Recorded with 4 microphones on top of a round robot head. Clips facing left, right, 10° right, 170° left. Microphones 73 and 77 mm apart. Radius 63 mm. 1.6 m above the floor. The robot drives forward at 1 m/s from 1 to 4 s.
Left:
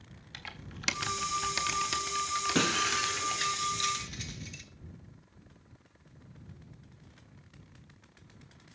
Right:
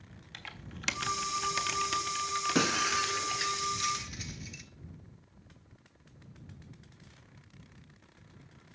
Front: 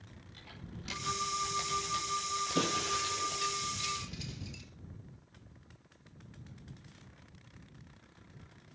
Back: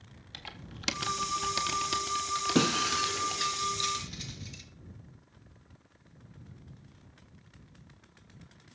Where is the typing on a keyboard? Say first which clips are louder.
Left 1 dB, back 4 dB; 175° left, 3.5 m; by 3.5 s straight behind, 6 m.